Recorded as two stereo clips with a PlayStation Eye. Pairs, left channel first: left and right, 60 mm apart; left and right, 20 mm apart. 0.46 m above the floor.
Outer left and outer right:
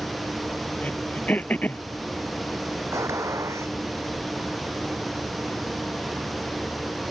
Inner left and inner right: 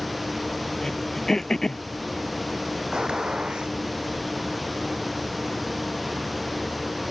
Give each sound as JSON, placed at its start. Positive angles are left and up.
{"t": 0.8, "sound": "throat clearing", "side_deg": 25}
{"t": 2.9, "sound": "a gunshot", "side_deg": -50}